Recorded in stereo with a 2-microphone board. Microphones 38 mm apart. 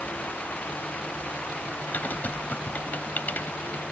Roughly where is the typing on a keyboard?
Left.